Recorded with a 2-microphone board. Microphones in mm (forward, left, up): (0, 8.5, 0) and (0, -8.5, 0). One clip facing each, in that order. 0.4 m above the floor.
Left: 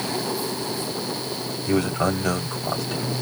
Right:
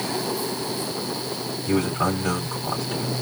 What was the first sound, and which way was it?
A man speaking, 25° left (ahead or behind).